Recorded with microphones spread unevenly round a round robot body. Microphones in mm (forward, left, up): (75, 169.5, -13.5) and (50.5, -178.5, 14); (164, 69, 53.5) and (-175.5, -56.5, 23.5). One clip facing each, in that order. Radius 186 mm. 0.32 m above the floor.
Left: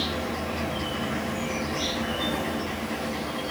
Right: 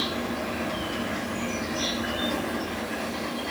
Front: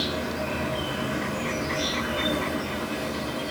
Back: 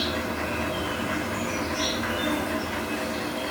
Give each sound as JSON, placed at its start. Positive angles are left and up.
{"t": 0.0, "sound": "an insect", "azimuth_deg": 165, "distance_m": 2.0}